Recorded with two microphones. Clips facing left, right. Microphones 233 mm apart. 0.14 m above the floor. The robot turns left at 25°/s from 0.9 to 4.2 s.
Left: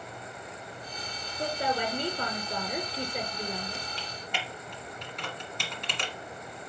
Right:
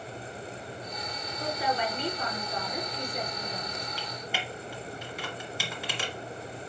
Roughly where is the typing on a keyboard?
Centre.